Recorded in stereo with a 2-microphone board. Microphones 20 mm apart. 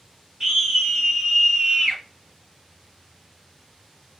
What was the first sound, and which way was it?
A scream, 15° right (ahead or behind).